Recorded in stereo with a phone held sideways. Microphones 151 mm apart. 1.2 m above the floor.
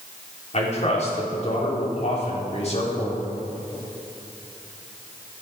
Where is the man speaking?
50° left (ahead or behind), 4 m.